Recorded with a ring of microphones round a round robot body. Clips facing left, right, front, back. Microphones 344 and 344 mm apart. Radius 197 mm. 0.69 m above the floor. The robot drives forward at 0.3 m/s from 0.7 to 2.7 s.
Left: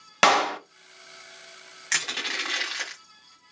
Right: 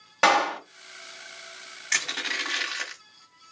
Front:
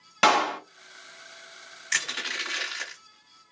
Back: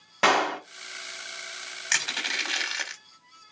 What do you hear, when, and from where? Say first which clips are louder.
0.2 s a clap: left 1 dB, back 1 dB; 65° left, 0.9 m
1.9 s crushing: left 1 dB, back 1 dB; 155° left, 1.6 m; by 3.0 s 160° left, 1.8 m